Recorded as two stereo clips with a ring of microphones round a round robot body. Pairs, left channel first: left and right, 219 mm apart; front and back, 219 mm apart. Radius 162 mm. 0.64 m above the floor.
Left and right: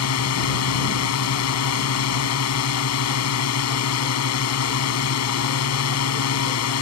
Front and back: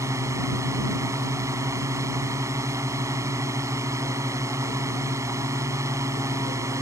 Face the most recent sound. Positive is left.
turn(degrees=100)